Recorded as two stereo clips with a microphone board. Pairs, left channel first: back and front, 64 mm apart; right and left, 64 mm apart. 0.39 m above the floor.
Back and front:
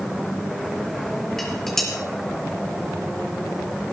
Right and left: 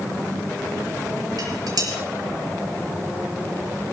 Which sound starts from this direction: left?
Dishes clattering, at 1.4 s.